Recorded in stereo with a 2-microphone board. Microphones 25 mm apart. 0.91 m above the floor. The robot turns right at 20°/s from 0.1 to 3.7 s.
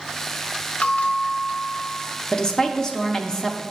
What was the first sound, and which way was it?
A bell, 65° left (ahead or behind).